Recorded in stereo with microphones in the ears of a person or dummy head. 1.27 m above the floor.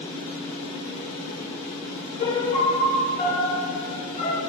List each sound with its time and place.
0.0 s a fan: 50° left (ahead or behind), 2.5 m
2.2 s a piano: 40° left (ahead or behind), 1.7 m